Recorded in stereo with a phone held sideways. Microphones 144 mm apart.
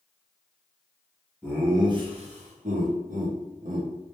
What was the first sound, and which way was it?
Laughter, 5° right (ahead or behind).